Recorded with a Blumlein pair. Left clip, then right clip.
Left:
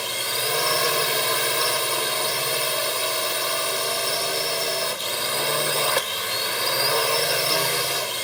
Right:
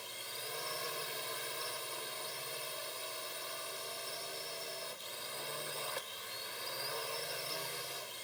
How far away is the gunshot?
I don't hear a gunshot.